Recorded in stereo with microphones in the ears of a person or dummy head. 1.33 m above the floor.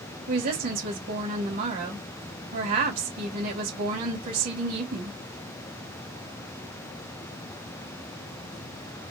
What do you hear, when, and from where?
0.3 s a woman speaking: 50° right (ahead or behind), 2.0 m